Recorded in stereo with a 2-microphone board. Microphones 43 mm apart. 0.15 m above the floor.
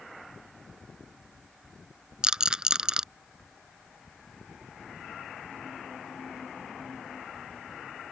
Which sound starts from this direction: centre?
A rattle, at 2.2 s.